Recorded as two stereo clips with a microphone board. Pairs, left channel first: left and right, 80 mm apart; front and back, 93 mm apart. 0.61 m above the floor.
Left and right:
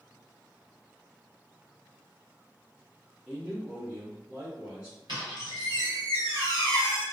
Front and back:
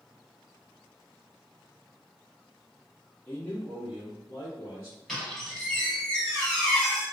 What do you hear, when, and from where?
3.3 s a man speaking: 35° right, 0.9 m; by 5.0 s 20° right, 1.4 m
5.1 s a squeak: 85° right, 1.6 m